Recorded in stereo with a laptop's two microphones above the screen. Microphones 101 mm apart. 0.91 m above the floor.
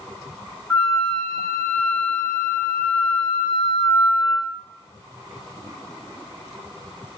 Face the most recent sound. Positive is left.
turn(degrees=10)  # may be behind; listen again after turning